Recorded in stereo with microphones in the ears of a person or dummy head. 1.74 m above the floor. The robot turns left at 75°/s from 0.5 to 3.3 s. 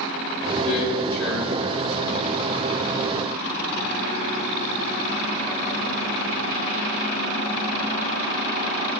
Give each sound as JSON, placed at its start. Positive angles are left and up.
{"t": 0.6, "sound": "a man speaking", "azimuth_deg": 50, "distance_m": 2.5}